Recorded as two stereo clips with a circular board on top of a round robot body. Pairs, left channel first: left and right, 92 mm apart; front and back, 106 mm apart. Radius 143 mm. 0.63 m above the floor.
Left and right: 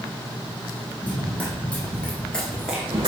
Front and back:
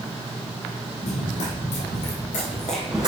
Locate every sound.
1.0 s running footsteps: 15° left, 3 m; by 3.1 s 140° right, 0.7 m